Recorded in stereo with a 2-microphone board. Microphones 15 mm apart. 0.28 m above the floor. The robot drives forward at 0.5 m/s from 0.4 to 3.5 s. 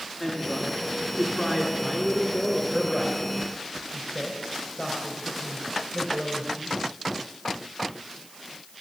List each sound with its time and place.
0.2 s a woman speaking: 5° right (ahead or behind), 3 m